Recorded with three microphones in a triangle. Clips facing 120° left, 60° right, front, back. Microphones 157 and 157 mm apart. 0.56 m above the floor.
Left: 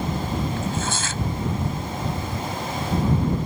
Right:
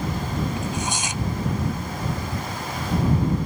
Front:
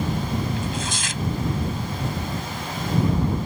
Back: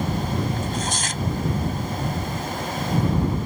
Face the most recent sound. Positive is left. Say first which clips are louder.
# left 1 dB, back 1 dB
turn(degrees=-135)